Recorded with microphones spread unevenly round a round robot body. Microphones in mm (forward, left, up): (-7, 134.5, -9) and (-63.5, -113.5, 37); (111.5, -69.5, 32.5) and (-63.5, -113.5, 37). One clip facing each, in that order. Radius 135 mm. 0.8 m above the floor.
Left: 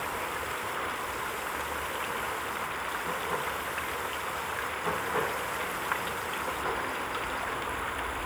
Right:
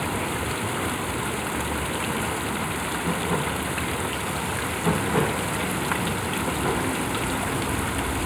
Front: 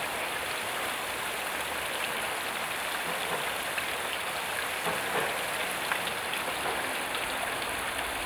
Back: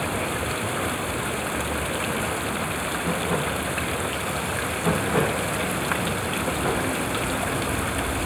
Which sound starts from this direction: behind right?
Running water, at 0.0 s.